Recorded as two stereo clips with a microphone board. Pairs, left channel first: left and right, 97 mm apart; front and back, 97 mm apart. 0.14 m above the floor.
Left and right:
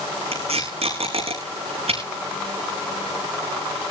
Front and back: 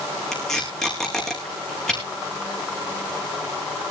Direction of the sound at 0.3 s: 85° right.